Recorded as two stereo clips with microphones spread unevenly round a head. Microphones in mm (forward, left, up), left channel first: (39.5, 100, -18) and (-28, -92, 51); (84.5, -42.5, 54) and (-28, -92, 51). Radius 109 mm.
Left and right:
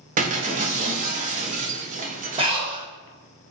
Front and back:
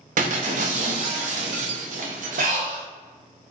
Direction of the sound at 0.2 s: 150° right.